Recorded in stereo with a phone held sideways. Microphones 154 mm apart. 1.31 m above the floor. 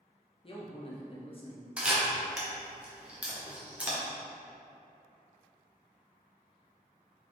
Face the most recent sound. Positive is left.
turn(degrees=-10)  # may be behind; listen again after turning